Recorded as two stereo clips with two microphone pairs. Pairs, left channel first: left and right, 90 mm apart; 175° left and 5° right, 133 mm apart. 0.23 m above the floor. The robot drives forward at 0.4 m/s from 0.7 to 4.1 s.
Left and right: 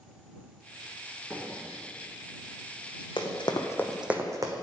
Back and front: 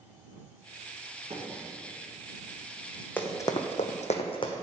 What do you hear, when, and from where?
1.3 s a microwave: 10° right, 2 m
3.2 s running footsteps: 100° left, 1.0 m; by 4.6 s 130° right, 1.2 m